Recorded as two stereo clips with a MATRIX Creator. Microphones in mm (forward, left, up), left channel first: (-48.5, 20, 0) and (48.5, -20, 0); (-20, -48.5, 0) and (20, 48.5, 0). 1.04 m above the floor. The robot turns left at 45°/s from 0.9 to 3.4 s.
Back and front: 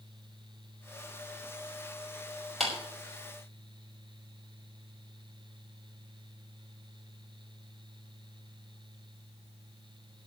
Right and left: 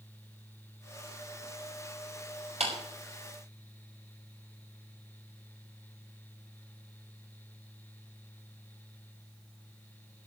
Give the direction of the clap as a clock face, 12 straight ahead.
10 o'clock.